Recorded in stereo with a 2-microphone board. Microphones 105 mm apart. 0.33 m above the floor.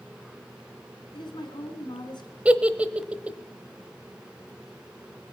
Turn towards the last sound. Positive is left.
turn(degrees=-15)  # may be behind; listen again after turning